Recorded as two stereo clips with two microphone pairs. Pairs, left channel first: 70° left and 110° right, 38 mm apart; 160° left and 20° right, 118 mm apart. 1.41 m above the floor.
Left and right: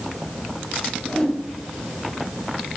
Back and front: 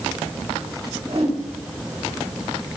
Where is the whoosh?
Straight ahead, 3 m.